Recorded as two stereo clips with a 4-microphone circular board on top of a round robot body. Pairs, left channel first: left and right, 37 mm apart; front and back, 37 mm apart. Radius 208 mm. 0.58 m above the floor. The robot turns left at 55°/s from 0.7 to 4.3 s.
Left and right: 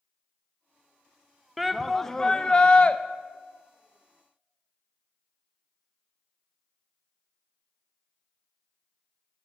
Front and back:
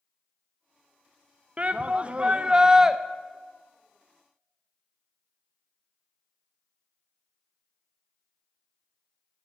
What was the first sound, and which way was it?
A shout, 175° right.